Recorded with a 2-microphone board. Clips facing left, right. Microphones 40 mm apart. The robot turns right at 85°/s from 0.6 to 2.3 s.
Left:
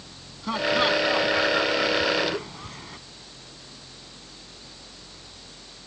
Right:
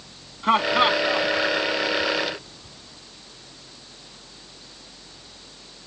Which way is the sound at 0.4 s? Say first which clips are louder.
Right 4 dB; 45° right (ahead or behind).